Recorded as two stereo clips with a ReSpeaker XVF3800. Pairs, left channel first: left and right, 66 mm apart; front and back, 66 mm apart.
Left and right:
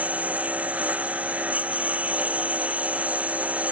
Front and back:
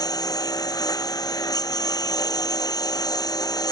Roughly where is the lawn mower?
Ahead.